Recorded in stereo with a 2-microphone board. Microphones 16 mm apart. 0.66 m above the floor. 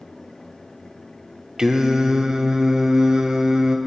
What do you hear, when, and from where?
1.6 s singing: 45° right (ahead or behind), 1.2 m